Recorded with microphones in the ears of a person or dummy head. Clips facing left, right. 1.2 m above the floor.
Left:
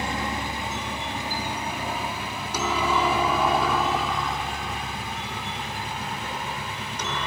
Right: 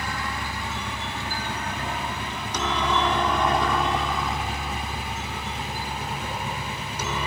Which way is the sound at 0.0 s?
20° left (ahead or behind).